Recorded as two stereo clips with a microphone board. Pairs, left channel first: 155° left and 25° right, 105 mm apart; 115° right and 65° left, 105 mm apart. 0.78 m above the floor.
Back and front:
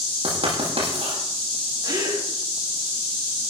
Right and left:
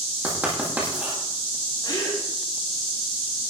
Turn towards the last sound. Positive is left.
turn(degrees=-65)